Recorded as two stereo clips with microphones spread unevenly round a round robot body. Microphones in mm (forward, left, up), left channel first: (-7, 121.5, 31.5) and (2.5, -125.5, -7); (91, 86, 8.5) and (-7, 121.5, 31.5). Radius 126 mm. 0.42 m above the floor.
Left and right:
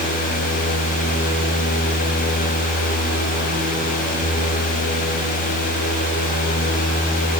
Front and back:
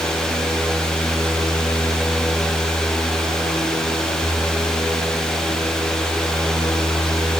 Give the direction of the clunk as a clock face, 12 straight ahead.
No clunk in this recording.